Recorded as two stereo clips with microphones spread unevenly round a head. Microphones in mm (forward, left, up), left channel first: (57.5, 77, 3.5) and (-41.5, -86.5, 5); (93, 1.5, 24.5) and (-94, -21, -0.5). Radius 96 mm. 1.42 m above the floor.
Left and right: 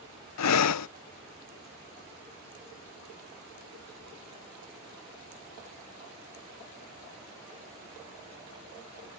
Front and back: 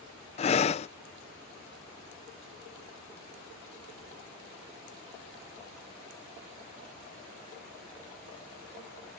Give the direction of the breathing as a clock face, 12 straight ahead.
10 o'clock.